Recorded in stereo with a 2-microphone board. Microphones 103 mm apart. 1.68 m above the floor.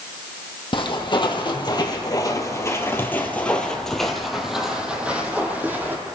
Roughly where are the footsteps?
Left.